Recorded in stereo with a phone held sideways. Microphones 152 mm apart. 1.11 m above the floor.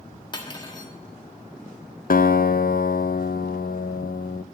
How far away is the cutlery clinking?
About 1.3 m.